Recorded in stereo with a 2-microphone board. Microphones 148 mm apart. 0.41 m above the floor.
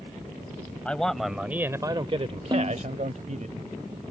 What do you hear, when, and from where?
0.8 s a man speaking: 10° left (ahead or behind); by 3.5 s 55° right (ahead or behind)
2.5 s a snare drum: 30° right (ahead or behind)